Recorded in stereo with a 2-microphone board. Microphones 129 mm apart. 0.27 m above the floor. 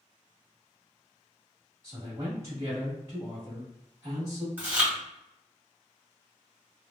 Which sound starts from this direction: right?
A man speaking, at 1.8 s.